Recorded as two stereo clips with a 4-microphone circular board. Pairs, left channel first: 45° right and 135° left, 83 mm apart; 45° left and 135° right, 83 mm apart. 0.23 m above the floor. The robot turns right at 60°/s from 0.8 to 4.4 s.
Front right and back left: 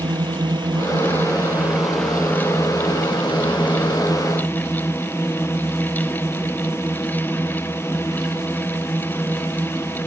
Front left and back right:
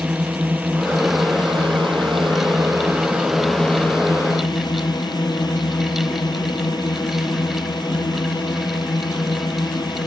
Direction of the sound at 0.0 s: 155° left.